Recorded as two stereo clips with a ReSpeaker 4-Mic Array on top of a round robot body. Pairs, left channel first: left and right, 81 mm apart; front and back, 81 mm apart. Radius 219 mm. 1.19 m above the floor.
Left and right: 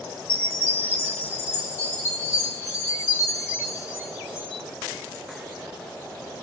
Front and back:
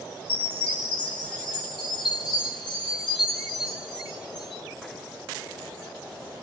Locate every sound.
0.3 s a chime: 25° left, 1.1 m